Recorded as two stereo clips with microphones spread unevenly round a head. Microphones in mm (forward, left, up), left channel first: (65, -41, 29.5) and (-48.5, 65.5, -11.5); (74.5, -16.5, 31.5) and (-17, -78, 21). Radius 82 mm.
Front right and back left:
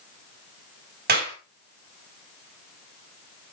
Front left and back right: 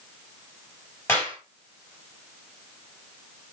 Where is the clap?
110° left, 4 m.